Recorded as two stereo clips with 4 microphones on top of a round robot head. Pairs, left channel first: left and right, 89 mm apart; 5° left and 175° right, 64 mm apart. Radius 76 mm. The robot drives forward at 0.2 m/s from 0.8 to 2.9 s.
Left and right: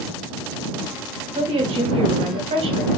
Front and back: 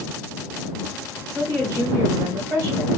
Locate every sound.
1.4 s a woman speaking: 105° right, 1.3 m; by 2.9 s 120° right, 1.4 m